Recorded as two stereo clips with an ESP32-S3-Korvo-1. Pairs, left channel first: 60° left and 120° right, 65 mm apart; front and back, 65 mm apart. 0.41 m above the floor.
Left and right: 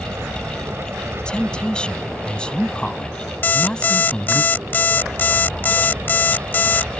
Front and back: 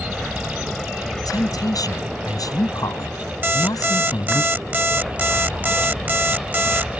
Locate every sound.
0.0 s an aircraft: 85° right; by 7.0 s 80° right
1.2 s a woman speaking: 15° right
3.4 s an alarm clock: 120° left